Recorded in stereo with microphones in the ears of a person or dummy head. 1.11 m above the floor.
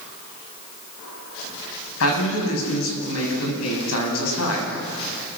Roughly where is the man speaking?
Left.